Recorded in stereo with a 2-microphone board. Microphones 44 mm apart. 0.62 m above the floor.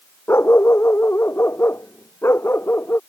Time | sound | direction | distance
0.3 | a dog barking | 70° left (ahead or behind) | ?